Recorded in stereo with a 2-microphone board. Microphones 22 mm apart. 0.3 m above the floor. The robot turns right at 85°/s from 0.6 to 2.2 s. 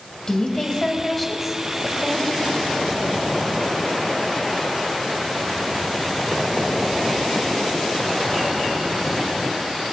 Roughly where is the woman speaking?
Behind left.